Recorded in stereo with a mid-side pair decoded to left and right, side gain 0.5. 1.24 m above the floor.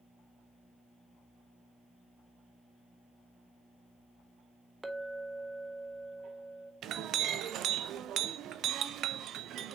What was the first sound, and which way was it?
A clink, 5° right.